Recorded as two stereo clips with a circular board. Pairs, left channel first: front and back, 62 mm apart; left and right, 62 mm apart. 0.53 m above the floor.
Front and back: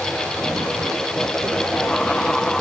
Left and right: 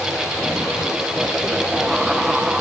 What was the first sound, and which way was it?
Only background noise.